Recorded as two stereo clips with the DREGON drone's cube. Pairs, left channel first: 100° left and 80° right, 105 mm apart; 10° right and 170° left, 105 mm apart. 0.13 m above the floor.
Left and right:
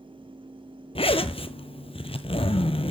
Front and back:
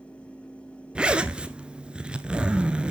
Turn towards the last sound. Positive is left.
turn(degrees=90)